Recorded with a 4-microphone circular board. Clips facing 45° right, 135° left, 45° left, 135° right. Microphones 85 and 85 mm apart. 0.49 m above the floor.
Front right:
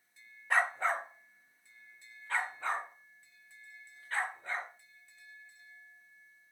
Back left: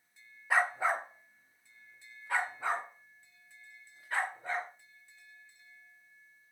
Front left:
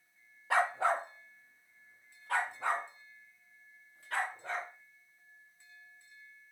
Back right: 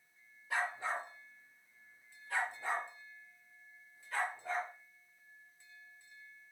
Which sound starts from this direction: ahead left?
A dog barking, at 0.5 s.